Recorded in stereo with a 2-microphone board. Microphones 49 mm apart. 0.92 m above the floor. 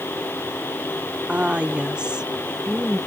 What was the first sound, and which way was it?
A woman speaking, 30° right (ahead or behind).